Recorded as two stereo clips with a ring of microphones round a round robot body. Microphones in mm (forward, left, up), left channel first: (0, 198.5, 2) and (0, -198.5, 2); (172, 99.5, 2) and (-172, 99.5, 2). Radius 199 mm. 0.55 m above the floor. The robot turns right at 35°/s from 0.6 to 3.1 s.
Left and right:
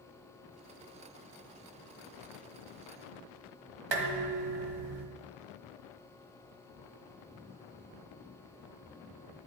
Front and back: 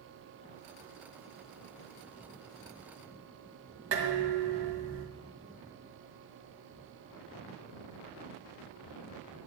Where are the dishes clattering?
120° right, 2 m.